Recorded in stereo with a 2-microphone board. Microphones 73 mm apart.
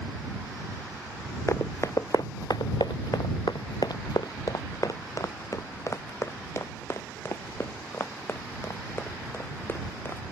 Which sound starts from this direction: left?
Running footsteps, at 1.5 s.